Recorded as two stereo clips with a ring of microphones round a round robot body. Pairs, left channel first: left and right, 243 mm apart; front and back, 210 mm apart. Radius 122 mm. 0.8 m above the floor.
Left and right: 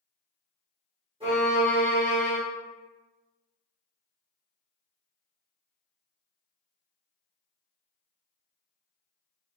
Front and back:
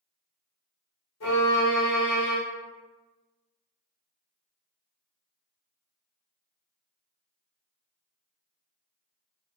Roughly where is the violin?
Ahead.